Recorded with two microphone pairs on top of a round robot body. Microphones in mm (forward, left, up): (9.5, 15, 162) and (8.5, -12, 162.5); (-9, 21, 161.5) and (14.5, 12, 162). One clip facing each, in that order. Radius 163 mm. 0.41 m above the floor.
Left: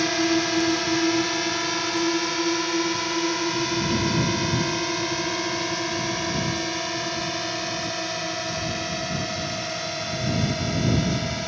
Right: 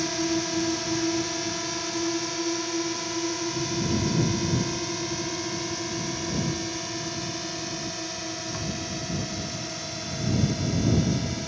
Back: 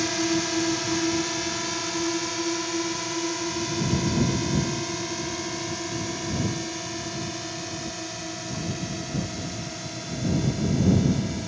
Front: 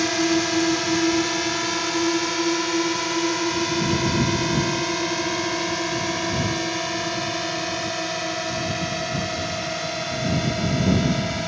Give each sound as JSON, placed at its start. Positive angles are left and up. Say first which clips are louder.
{"t": 0.0, "sound": "a drone", "louder": "left 5 dB, front 4 dB", "azimuth_deg": 45}